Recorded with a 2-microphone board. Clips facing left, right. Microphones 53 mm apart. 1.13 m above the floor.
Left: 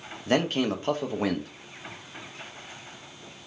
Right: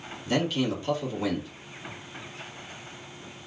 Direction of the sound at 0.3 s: 45° left (ahead or behind).